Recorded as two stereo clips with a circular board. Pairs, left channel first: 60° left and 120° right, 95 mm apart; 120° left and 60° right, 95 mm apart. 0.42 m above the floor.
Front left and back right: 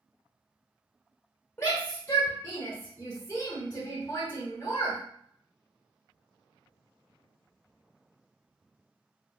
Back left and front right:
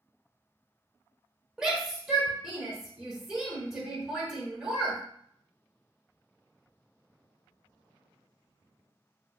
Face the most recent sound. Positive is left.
turn(degrees=15)